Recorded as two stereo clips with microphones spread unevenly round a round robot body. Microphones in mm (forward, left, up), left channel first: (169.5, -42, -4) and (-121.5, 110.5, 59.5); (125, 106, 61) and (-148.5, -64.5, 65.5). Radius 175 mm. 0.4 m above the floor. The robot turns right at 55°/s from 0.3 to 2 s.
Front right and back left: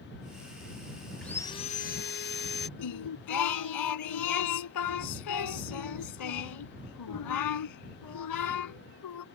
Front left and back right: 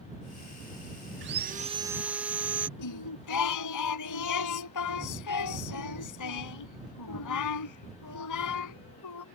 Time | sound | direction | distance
1.2 | sawing | 105° right | ?
2.8 | singing | straight ahead | ?